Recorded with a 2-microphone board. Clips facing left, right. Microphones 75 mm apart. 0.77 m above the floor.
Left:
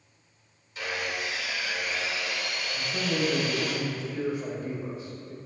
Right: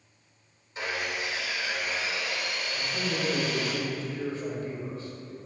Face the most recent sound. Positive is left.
turn(degrees=20)  # may be behind; listen again after turning